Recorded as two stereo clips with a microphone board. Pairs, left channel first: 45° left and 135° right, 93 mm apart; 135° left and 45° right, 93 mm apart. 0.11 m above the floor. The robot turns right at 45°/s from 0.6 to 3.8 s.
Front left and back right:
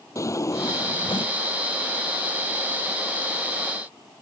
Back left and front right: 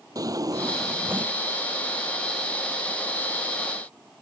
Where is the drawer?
5° right; by 1.4 s 30° left.